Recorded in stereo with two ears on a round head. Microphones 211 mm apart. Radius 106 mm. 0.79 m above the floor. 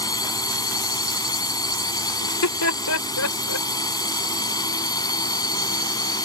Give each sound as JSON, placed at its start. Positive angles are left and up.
{"t": 0.0, "sound": "a drone", "side_deg": 15}
{"t": 2.2, "sound": "laughter", "side_deg": 70}